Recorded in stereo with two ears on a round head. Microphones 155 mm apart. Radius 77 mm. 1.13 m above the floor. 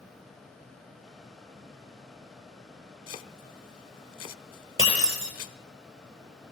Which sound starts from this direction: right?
Breaking glass, at 4.8 s.